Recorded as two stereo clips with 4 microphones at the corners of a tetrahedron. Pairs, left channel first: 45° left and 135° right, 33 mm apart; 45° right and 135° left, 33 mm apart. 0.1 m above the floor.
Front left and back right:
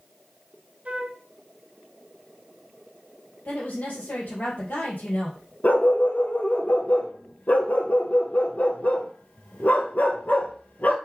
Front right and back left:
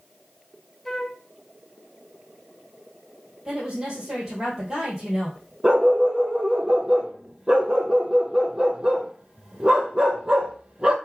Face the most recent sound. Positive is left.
turn(degrees=75)